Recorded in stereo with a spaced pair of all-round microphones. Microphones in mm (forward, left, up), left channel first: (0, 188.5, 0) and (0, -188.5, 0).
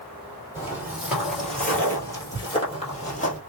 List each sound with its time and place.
0.6 s footsteps: 5° right (ahead or behind), 2.0 m; by 3.4 s 20° left (ahead or behind), 1.7 m